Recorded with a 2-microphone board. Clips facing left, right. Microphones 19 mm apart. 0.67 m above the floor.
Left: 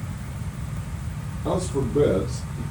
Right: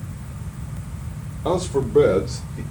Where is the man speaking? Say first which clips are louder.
Right 4 dB; 50° right (ahead or behind), 1.5 m; by 2.6 s 70° right (ahead or behind), 1.9 m.